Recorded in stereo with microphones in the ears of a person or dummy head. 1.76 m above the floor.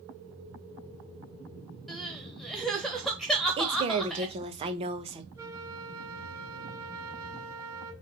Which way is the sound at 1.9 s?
Centre (ahead or behind).